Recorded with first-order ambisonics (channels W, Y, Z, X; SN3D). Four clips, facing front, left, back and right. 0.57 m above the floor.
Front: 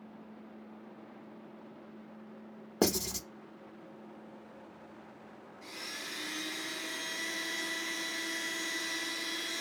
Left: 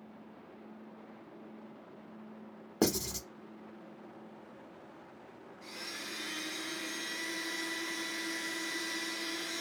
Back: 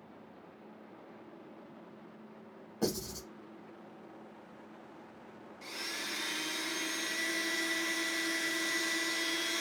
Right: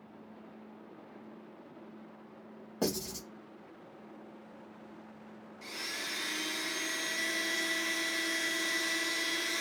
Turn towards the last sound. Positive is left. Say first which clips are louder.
# right 4 dB, back 3 dB
turn(degrees=-130)